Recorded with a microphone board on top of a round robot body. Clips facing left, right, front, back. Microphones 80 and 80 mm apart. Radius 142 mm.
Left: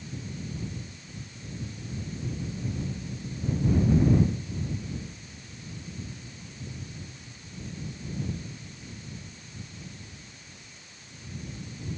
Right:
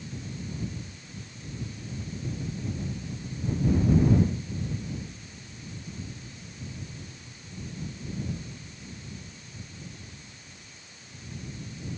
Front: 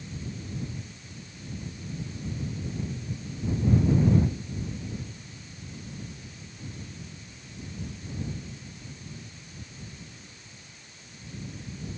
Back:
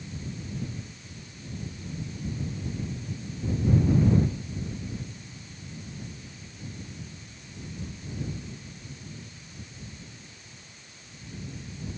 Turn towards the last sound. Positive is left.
No sound to turn to.